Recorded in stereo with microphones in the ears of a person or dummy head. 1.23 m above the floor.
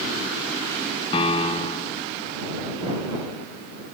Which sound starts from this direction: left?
A piano, at 1.1 s.